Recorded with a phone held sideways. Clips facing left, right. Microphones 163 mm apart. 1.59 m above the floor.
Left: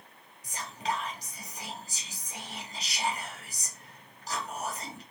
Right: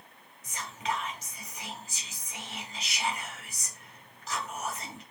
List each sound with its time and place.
0.4 s whispering: 35° left (ahead or behind), 1.2 m